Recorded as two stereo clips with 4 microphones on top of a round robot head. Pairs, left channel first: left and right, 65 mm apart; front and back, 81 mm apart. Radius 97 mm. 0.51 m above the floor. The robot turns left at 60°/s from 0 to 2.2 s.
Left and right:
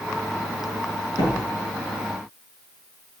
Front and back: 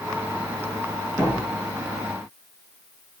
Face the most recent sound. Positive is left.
turn(degrees=60)